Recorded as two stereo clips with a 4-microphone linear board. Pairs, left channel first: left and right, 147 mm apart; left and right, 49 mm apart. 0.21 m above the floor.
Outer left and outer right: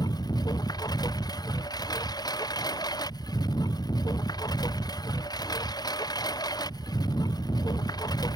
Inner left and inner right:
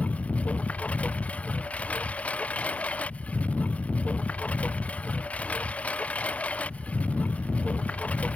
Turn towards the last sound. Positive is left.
turn(degrees=25)  # may be behind; listen again after turning